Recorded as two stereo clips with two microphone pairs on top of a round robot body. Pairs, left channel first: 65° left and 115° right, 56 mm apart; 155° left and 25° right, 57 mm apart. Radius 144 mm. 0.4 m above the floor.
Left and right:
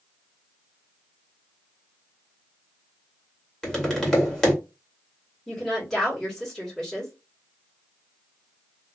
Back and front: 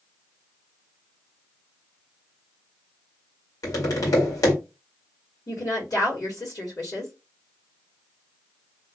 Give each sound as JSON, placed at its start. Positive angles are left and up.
{"t": 3.6, "sound": "tapping", "azimuth_deg": 150, "distance_m": 2.0}
{"t": 5.5, "sound": "a woman speaking", "azimuth_deg": 150, "distance_m": 1.9}